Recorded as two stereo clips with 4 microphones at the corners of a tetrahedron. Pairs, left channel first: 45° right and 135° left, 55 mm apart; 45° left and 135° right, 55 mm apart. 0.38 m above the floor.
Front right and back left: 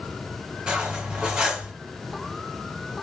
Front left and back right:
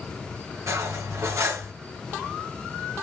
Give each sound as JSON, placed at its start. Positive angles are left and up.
{"t": 0.7, "sound": "cutlery clinking", "azimuth_deg": -155, "distance_m": 1.2}